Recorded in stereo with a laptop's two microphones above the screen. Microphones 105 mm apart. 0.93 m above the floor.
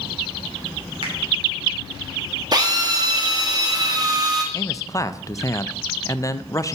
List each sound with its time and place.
1.0 s a finger snap: 60° right (ahead or behind), 2.5 m
2.5 s a drill: 40° right (ahead or behind), 1.0 m
4.5 s a man speaking: 30° left (ahead or behind), 0.5 m